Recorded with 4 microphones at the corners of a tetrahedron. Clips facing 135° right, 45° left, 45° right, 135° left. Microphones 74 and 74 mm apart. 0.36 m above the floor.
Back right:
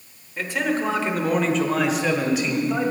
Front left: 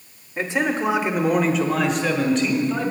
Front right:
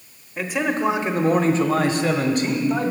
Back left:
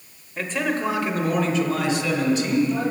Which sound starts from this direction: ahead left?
A man speaking, at 0.4 s.